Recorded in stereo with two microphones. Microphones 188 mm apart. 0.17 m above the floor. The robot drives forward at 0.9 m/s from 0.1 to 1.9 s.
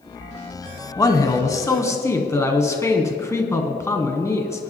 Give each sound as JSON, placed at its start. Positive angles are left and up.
{"t": 1.0, "sound": "a man speaking", "side_deg": 20, "distance_m": 1.1}